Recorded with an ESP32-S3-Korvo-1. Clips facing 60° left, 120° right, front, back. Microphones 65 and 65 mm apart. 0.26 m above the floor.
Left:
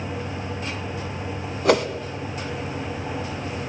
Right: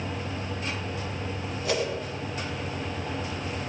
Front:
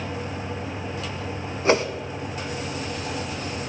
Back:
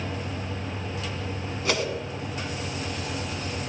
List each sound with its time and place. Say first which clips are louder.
1.6 s a whoosh: left 9 dB, front 7 dB; 55° left, 0.7 m